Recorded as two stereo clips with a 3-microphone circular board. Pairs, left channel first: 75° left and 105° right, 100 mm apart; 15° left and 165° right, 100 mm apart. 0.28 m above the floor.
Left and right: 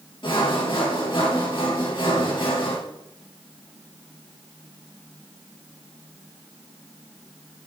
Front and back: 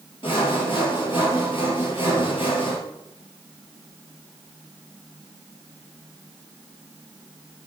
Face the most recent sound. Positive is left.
turn(degrees=45)